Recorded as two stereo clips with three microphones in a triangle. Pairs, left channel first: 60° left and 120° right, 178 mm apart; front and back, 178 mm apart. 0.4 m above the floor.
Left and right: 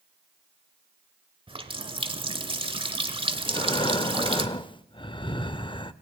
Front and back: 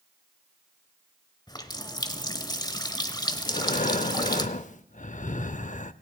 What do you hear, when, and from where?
1.5 s a running tap: 60° right, 1.0 m
3.5 s breathing: 10° left, 0.5 m